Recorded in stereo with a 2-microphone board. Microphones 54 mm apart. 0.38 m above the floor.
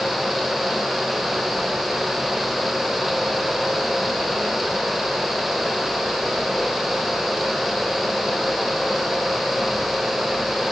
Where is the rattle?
I don't hear a rattle.